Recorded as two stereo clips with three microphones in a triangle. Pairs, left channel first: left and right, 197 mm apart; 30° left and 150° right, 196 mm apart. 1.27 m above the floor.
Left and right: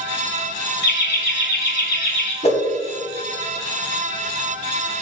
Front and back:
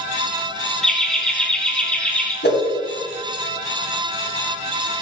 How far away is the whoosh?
About 2 m.